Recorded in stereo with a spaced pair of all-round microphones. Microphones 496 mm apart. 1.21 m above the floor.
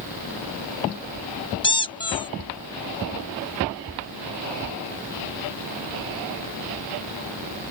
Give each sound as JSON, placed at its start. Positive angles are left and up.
{"t": 1.6, "sound": "a squeak", "side_deg": 10}